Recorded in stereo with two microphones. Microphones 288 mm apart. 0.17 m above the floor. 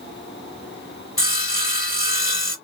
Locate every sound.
1.2 s sawing: 45° left (ahead or behind), 1.4 m